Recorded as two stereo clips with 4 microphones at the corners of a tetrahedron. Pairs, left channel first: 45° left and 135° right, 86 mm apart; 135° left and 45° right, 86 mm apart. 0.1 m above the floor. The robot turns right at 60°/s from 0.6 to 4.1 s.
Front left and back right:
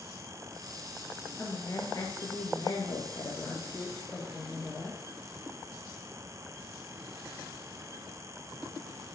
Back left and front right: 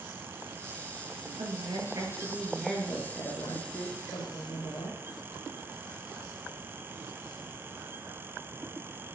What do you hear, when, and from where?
1.4 s a woman speaking: 35° right, 6.5 m; by 5.0 s 130° left, 6.5 m